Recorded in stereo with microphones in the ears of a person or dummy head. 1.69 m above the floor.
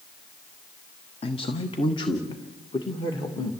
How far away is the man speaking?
About 1.3 m.